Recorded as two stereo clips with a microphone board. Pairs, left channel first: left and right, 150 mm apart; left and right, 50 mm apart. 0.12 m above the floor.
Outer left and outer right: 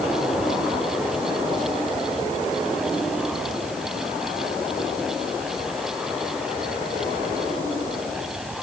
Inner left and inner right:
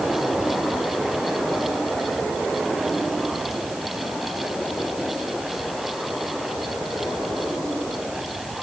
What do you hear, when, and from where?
Only background noise.